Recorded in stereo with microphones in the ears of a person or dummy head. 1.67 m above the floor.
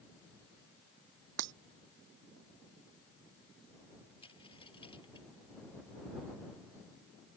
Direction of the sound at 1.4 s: 65° right (ahead or behind).